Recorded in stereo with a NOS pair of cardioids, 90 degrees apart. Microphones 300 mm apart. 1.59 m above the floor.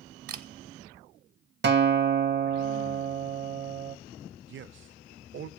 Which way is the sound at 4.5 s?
40° right.